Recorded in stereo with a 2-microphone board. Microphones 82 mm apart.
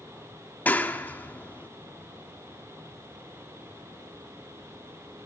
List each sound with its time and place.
0.7 s a clap: 20° left (ahead or behind), 1.2 m